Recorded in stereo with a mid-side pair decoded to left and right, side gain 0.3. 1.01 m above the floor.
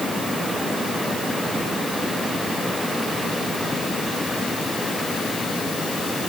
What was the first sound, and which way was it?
Only background noise.